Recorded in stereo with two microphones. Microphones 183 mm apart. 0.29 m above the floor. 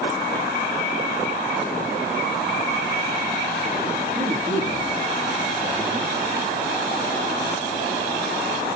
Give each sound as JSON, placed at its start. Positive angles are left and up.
{"t": 4.2, "sound": "a man speaking", "side_deg": -35, "distance_m": 6.5}